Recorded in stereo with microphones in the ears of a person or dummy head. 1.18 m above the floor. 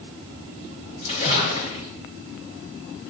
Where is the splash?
45° left (ahead or behind), 3 m.